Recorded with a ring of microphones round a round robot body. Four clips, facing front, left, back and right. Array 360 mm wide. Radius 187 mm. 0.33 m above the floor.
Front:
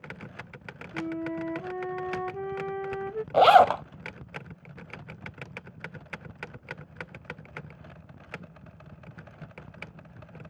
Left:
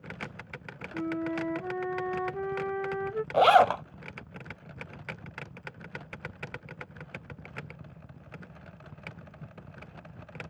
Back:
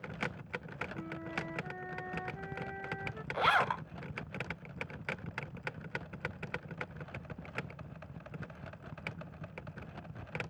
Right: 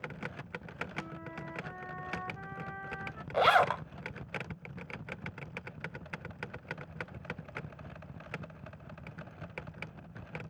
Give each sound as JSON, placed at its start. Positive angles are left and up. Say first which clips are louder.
{"t": 0.9, "sound": "a flute", "louder": "left 12 dB, front 13 dB", "azimuth_deg": 50}
{"t": 3.3, "sound": "a zipper", "louder": "left 6 dB, front 14 dB", "azimuth_deg": 25}